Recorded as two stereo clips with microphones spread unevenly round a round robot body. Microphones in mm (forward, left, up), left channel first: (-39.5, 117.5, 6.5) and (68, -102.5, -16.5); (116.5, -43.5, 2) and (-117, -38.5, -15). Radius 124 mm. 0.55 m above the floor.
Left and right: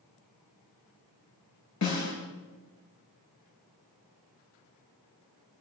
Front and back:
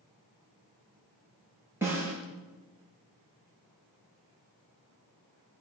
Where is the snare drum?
95° left, 6 m.